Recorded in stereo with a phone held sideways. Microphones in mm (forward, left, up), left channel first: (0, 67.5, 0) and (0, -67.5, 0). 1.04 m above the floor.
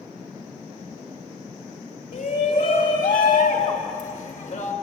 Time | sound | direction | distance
2.1 | a shout | 75° left (ahead or behind) | 4 m